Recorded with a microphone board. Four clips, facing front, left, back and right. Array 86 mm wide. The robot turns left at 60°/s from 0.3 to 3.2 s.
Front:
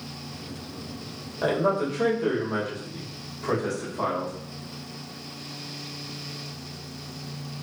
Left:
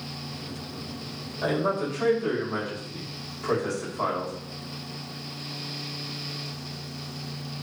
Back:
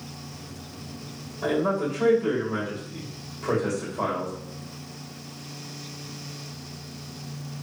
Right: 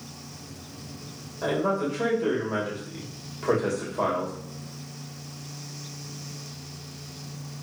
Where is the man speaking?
5° left, 2.5 m; by 4.3 s 105° right, 2.5 m.